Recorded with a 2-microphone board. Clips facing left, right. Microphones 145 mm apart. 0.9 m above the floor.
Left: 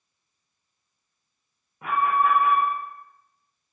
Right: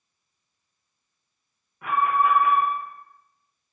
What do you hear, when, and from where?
1.8 s an alarm: 25° left (ahead or behind), 1.5 m